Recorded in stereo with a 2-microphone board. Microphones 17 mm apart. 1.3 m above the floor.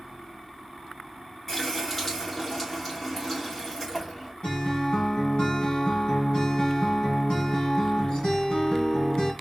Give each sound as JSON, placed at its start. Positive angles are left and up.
{"t": 1.5, "sound": "a running tap", "side_deg": 0, "distance_m": 2.0}
{"t": 4.4, "sound": "a guitar", "side_deg": 45, "distance_m": 2.5}